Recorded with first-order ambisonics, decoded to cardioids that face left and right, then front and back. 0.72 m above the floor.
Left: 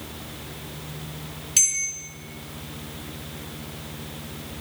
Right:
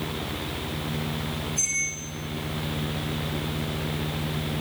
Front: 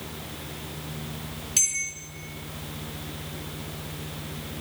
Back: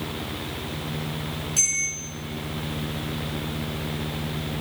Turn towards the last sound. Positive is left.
turn(degrees=70)